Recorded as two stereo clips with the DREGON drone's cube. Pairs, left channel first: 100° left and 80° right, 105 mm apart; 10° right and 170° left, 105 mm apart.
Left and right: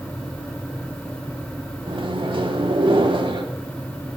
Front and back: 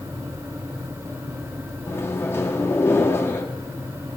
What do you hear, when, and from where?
1.9 s a microwave: 75° right, 1.1 m